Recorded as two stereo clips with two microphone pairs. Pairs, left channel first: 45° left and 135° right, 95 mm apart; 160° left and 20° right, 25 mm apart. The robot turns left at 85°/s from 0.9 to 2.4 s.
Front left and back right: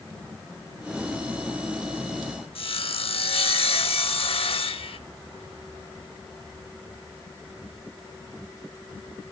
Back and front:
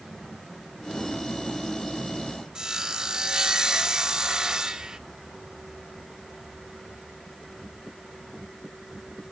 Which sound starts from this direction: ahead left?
Sawing, at 2.5 s.